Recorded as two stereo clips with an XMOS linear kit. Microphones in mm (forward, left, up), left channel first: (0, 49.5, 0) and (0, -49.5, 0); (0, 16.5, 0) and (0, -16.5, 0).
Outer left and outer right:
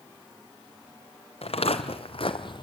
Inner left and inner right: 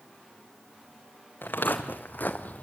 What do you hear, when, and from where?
1.4 s footsteps: 70° left (ahead or behind), 1.7 m; by 2.6 s 45° left (ahead or behind), 0.8 m